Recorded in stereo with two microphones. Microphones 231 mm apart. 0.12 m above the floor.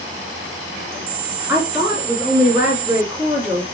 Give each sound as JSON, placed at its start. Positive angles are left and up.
{"t": 1.5, "sound": "a woman speaking", "side_deg": -10, "distance_m": 1.7}